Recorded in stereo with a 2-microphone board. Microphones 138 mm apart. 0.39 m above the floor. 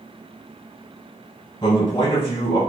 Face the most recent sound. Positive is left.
turn(degrees=35)  # may be behind; listen again after turning